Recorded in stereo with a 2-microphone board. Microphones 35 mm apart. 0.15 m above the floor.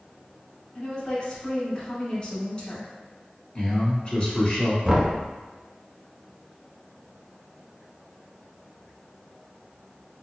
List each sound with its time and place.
0.8 s a woman speaking: 30° left (ahead or behind), 1.3 m
3.5 s a man speaking: 35° left (ahead or behind), 1.3 m
4.8 s knocking: 15° right (ahead or behind), 0.8 m